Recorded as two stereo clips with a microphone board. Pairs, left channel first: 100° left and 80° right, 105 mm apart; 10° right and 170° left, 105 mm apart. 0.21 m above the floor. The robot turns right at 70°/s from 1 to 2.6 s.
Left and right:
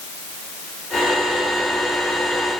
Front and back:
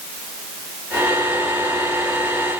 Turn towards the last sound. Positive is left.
No sound to turn to.